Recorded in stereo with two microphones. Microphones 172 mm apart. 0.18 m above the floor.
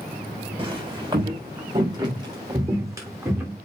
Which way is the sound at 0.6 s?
30° right (ahead or behind).